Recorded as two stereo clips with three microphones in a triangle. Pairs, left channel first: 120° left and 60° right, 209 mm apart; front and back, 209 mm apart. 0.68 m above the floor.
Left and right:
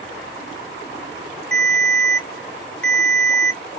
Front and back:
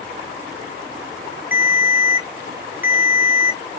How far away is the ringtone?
About 0.6 m.